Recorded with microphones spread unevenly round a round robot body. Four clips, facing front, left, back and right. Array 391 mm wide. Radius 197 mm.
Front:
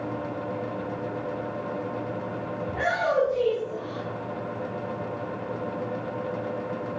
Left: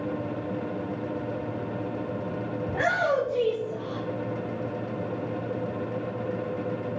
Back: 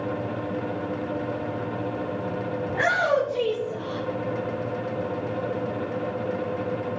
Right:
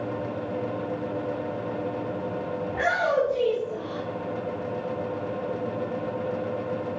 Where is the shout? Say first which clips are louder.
Even, back 3 dB; 95° left, 5.5 m; by 4.0 s 90° left, 4.5 m.